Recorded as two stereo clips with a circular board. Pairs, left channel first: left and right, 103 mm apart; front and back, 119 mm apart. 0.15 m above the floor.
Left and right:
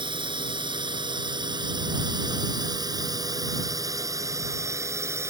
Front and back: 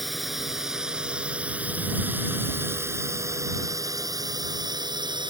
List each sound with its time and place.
0.0 s a drone: 90° right; by 5.3 s 145° right